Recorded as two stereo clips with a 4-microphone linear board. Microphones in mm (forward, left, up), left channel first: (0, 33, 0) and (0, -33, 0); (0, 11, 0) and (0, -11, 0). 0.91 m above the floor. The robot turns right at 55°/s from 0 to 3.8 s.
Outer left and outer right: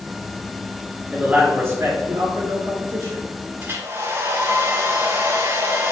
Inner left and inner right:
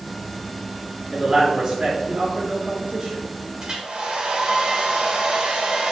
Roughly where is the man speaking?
Behind.